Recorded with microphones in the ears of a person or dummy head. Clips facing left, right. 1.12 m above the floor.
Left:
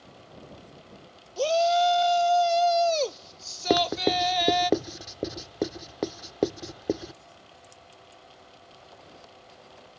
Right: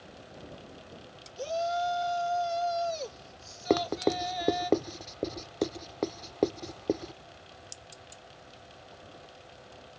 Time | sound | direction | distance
1.4 | a shout | 80° left | ?
3.7 | writing | 5° left (ahead or behind) | ?